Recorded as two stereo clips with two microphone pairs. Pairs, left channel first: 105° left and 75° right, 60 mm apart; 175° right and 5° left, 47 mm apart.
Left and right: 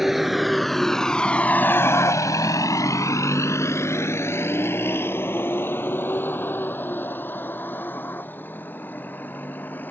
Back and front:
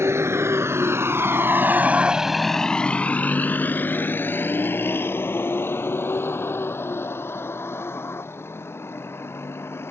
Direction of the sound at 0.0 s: 5° left.